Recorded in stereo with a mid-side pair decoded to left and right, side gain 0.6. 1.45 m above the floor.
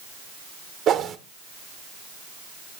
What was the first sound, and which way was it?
A whoosh, 50° right.